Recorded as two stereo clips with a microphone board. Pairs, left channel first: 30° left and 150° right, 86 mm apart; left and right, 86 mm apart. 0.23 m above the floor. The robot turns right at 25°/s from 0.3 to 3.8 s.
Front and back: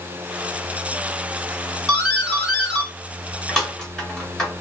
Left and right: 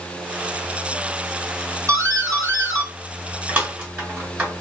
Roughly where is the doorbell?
Right.